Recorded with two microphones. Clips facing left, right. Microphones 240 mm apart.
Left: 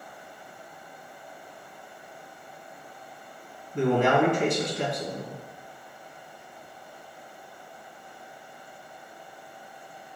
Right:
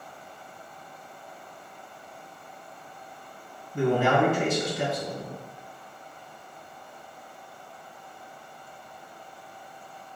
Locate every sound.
3.7 s a man speaking: 5° right (ahead or behind), 2.0 m